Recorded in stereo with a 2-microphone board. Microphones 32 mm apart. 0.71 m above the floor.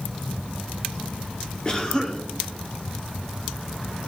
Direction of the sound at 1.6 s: 25° left (ahead or behind).